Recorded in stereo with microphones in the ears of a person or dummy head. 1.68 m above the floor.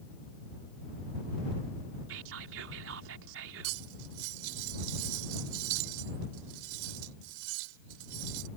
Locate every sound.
2.1 s whispering: 75° right (ahead or behind)
3.6 s cutlery clinking: 75° right (ahead or behind)